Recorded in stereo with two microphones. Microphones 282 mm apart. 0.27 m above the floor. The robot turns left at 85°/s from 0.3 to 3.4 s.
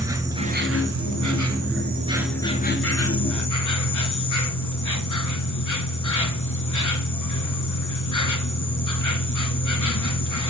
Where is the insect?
10° right, 1.1 m; by 10.5 s 85° left, 1.1 m.